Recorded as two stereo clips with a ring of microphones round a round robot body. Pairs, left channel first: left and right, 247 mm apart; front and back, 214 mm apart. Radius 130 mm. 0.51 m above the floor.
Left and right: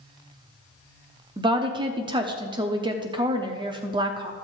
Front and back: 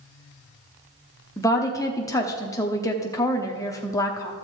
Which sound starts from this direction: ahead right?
A woman speaking, at 1.4 s.